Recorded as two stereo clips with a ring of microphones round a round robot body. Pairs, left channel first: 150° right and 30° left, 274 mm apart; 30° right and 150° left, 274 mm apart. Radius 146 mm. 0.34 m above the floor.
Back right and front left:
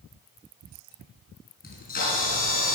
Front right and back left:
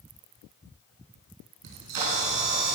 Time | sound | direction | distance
1.6 | a camera shutter | 150° left | 5 m